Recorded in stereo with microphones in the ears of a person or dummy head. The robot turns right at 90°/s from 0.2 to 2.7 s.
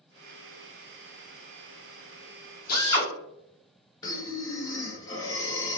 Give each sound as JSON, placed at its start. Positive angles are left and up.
{"t": 2.7, "sound": "a drill", "side_deg": 50, "distance_m": 0.9}
{"t": 4.0, "sound": "breathing", "side_deg": 15, "distance_m": 0.6}